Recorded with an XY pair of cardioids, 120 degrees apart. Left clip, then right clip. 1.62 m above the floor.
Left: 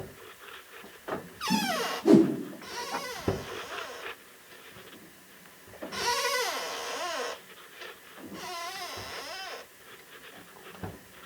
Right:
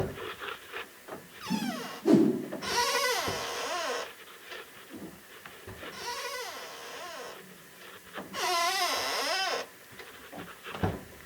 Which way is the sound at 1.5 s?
20° left.